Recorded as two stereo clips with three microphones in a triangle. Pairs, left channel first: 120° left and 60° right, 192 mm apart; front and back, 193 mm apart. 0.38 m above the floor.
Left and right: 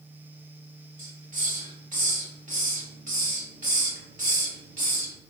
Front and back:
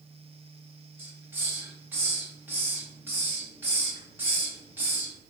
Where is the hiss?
105° right, 0.9 m.